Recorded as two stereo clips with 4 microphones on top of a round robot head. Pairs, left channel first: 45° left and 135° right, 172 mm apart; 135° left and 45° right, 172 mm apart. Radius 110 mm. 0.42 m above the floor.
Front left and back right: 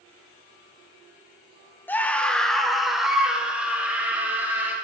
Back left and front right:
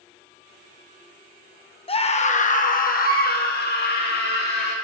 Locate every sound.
1.9 s a scream: 115° left, 1.2 m; by 4.7 s 150° left, 3 m